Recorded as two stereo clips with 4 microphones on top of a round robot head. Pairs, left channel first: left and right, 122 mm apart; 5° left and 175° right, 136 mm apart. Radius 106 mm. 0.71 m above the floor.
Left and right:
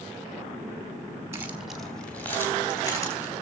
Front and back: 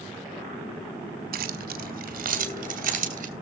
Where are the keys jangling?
165° right, 1.2 m; by 3.3 s 160° left, 3.5 m.